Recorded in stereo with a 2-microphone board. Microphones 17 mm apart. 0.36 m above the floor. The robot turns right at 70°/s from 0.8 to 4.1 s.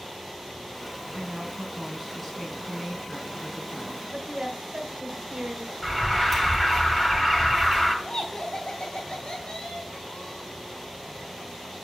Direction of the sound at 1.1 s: 60° right.